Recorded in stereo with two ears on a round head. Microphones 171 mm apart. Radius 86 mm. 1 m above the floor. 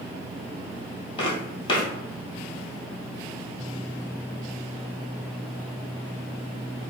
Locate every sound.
1.2 s footsteps: 25° left (ahead or behind), 1.2 m